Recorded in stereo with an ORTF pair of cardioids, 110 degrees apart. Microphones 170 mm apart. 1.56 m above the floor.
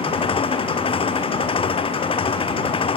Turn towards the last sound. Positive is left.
turn(degrees=30)